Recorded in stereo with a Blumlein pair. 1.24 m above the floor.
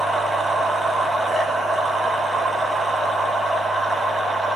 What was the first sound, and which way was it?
A machine running, 5° right.